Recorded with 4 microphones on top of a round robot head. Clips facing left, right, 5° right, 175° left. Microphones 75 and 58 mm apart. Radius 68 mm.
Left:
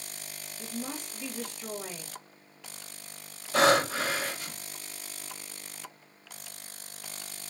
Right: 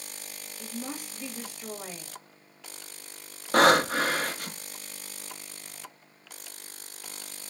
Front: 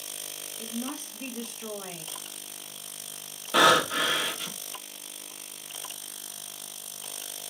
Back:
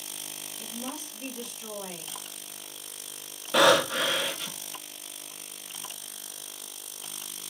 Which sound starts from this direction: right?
Breathing, at 3.5 s.